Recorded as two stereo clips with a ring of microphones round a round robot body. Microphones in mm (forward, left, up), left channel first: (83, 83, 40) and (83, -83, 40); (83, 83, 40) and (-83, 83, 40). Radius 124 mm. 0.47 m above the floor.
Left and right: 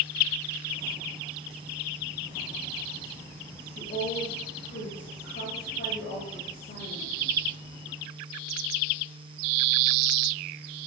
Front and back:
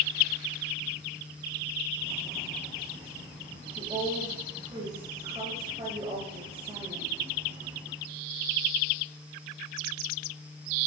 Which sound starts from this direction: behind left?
A woman speaking, at 3.8 s.